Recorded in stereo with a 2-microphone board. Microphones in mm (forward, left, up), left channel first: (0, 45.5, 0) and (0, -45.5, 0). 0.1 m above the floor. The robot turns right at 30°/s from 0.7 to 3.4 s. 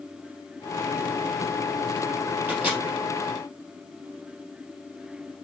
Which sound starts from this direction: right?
A microwave, at 2.5 s.